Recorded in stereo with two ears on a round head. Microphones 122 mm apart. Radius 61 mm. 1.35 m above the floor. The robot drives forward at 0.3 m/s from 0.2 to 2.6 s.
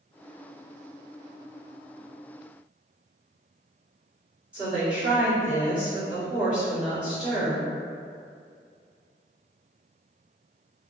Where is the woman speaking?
10° right (ahead or behind), 1.8 m.